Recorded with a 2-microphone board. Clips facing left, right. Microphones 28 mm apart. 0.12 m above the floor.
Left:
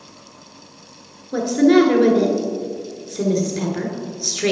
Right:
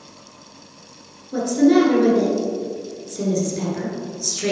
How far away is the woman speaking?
About 1.4 m.